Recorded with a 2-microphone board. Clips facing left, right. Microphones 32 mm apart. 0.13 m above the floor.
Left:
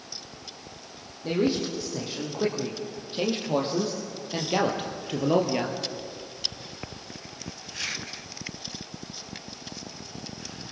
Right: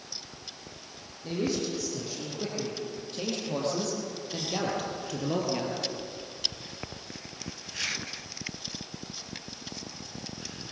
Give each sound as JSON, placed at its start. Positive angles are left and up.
{"t": 1.2, "sound": "a man speaking", "side_deg": 30, "distance_m": 4.5}